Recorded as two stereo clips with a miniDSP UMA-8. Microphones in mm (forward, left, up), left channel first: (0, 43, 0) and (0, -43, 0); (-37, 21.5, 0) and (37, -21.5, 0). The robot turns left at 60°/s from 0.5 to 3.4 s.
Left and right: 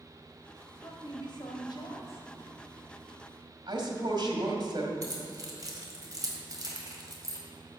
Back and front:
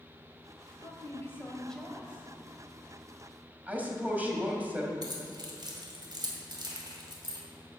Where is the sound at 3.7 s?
100° right, 1.9 m.